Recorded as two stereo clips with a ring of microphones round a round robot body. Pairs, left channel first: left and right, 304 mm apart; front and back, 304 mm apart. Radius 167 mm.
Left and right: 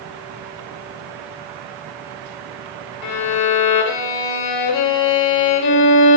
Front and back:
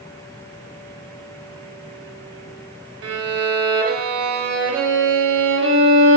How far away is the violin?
About 0.6 m.